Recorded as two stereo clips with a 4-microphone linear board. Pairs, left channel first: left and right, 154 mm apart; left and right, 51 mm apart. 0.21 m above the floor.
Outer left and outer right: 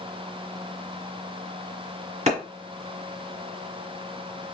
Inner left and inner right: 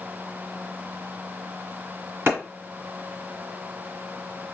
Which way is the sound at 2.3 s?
50° right (ahead or behind).